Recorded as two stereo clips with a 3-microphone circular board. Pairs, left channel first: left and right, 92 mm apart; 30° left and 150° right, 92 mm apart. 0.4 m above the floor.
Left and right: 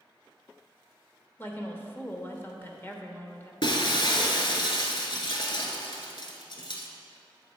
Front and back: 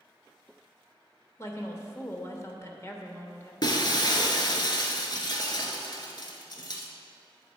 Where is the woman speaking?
50° left, 0.9 m.